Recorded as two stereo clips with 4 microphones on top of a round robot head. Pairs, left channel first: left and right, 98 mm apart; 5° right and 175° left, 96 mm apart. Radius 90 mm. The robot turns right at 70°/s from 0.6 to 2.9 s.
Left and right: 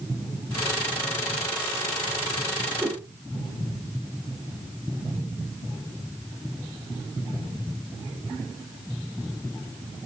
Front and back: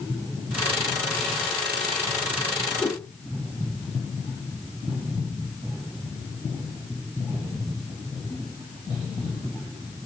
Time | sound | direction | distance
2.8 | a whoosh | 45° right | 1.5 m